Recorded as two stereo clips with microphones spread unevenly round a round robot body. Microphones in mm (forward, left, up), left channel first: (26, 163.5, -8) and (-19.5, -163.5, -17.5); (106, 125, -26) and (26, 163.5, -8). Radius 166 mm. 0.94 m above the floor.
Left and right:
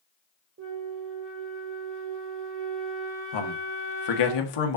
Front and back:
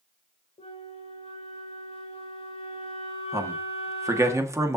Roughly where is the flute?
Ahead right.